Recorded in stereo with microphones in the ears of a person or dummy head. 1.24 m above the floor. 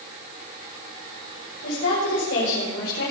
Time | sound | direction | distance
1.6 | a woman speaking | 70° left (ahead or behind) | 5 m